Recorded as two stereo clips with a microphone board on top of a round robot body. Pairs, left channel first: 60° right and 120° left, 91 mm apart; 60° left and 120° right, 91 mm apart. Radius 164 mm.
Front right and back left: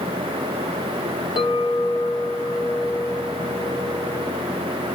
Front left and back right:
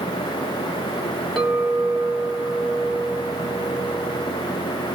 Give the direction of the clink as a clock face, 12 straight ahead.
1 o'clock.